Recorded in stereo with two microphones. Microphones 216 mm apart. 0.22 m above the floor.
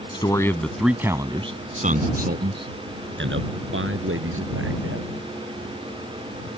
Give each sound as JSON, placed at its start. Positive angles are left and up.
{"t": 0.1, "sound": "a man speaking", "side_deg": 20}